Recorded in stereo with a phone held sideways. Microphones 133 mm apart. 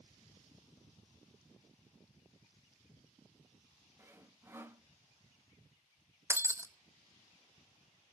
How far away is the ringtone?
I don't hear a ringtone.